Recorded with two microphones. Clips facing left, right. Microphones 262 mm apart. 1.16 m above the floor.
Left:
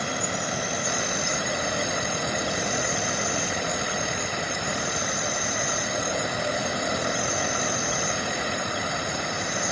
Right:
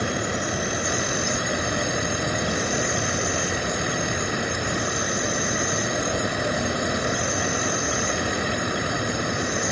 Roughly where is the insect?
Right.